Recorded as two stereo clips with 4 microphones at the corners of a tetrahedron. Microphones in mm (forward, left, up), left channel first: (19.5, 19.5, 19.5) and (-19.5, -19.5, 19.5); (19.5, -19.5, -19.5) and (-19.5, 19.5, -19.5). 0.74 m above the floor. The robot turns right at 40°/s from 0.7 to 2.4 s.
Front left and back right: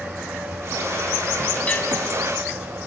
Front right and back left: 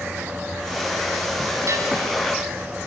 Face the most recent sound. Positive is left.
turn(degrees=140)